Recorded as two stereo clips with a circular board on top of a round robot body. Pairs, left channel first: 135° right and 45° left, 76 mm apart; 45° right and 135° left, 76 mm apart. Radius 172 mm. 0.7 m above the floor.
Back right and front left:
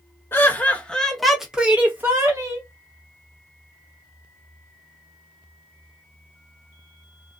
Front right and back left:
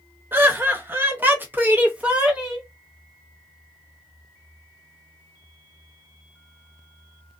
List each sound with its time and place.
0.3 s laughter: straight behind, 1.3 m; by 2.6 s 65° left, 1.4 m